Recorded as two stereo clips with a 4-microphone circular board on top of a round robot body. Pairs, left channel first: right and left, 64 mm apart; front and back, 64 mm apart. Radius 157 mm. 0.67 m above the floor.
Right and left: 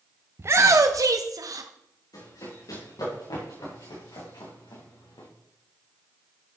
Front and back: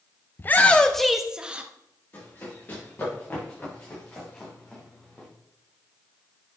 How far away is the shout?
About 0.8 m.